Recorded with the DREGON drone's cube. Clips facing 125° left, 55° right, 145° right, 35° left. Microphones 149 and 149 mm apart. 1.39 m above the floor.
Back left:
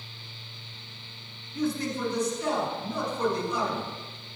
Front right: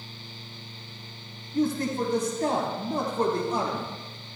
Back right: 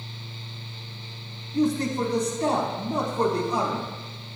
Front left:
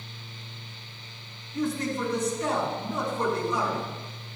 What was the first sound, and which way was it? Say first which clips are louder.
A man speaking: front right 4 dB, back right 5 dB; 95° right.